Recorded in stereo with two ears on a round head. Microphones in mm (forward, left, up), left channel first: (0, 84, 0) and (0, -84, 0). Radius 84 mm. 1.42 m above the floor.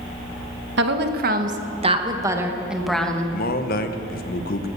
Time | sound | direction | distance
0.8 | a woman speaking | 65° right (ahead or behind) | 1.6 m
3.3 | a man speaking | 50° left (ahead or behind) | 1.2 m